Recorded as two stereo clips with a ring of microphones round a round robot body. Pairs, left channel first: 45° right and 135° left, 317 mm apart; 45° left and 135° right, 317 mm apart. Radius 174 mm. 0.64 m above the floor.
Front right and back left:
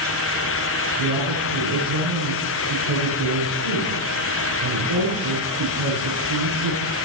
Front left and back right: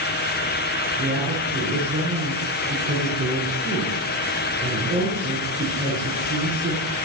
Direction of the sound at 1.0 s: 150° left.